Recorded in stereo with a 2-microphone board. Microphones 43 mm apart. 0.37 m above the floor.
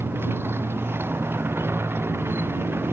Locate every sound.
0.0 s a motorcycle: 75° right (ahead or behind)